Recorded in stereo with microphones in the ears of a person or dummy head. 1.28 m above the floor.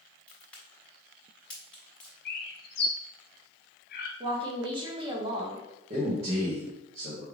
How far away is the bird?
About 0.7 m.